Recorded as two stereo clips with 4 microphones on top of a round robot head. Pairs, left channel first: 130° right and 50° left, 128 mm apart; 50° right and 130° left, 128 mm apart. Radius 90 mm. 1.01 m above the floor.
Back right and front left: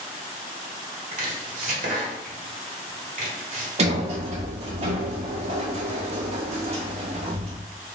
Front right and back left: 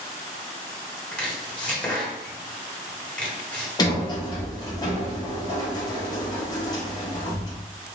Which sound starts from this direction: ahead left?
Chopping, at 1.1 s.